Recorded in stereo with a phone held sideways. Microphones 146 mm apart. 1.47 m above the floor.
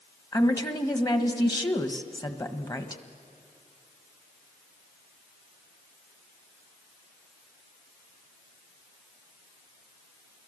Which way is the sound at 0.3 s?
25° left (ahead or behind).